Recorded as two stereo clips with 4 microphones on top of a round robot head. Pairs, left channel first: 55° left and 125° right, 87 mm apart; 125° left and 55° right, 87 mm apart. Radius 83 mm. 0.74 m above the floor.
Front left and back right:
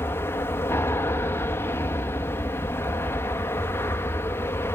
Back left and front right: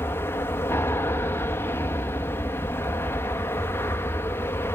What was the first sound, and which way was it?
An aircraft, 90° left.